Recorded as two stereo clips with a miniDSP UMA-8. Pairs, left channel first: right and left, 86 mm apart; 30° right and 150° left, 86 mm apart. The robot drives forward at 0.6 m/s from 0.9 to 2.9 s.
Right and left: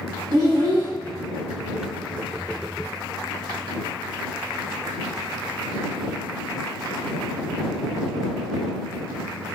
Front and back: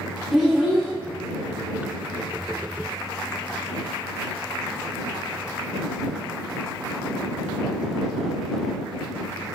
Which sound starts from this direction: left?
A child speaking, at 0.3 s.